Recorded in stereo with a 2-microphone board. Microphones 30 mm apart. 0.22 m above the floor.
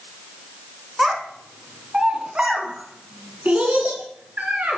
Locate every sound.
1.0 s a child speaking: 10° right (ahead or behind), 1.6 m; by 4.8 s 70° right (ahead or behind), 1.8 m